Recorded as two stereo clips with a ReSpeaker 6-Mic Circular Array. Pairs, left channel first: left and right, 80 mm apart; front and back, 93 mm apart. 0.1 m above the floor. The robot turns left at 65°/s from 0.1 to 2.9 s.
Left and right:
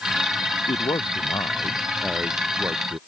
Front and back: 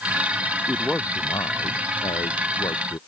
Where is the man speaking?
95° left; by 3.0 s 50° right.